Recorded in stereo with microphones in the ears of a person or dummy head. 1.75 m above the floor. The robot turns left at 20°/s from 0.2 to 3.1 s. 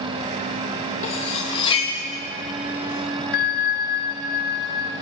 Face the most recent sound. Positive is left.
turn(degrees=50)  # may be behind; listen again after turning